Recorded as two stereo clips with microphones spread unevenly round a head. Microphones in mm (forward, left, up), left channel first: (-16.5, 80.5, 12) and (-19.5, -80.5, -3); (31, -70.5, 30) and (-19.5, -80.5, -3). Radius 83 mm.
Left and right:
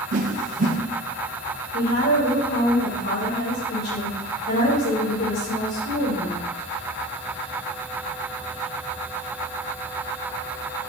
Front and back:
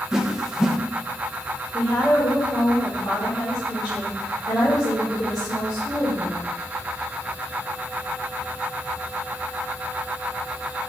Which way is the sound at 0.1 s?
115° right.